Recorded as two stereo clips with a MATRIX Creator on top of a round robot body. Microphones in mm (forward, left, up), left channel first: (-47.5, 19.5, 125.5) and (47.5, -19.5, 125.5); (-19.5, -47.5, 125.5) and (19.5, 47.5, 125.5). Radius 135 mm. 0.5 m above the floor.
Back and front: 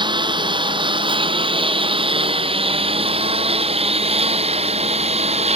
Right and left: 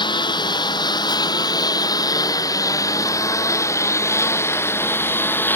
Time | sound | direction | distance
0.0 | a lawn mower | 65° right | ?